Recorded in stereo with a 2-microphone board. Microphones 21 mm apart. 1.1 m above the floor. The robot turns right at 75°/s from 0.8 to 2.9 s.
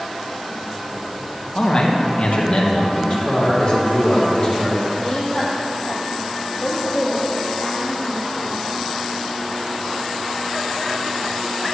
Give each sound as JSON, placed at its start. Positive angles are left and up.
{"t": 1.6, "sound": "a man speaking", "azimuth_deg": 30, "distance_m": 1.4}
{"t": 2.9, "sound": "a man speaking", "side_deg": 50, "distance_m": 2.0}
{"t": 5.0, "sound": "a woman speaking", "side_deg": 50, "distance_m": 1.9}